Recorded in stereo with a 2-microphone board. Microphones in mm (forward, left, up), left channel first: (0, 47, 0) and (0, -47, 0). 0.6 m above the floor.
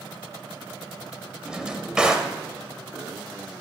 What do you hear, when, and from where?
1.4 s a drawer: 10° right (ahead or behind), 0.9 m